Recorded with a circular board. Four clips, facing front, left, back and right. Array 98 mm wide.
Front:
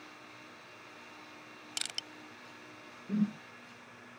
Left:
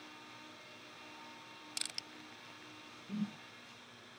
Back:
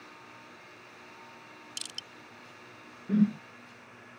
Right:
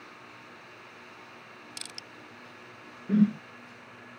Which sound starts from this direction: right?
A whoosh, at 3.1 s.